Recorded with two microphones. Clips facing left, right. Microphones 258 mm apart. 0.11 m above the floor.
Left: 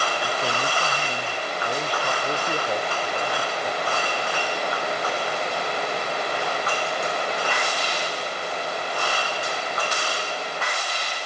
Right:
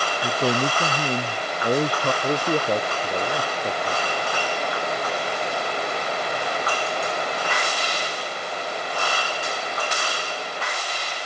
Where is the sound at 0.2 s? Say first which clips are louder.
Right 5 dB; 55° right (ahead or behind); by 2.1 s 50° right (ahead or behind).